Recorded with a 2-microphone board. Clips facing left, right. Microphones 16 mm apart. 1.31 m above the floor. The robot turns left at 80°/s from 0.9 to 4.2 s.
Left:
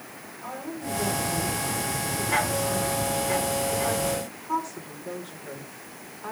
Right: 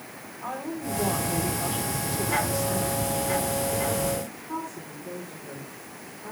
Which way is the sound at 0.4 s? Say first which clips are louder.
Right 2 dB; 25° right.